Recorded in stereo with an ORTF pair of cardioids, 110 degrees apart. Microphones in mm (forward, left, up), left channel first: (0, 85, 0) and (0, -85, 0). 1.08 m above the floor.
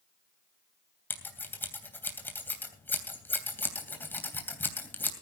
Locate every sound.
1.1 s scissors: 10° left, 3 m